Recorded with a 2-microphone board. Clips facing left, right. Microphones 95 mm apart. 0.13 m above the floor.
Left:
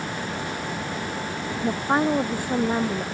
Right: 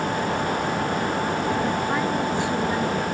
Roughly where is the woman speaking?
Left.